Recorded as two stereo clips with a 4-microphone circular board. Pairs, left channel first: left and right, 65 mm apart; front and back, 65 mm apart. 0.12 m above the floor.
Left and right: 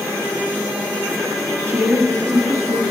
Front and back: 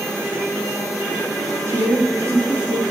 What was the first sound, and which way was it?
A woman speaking, 130° right.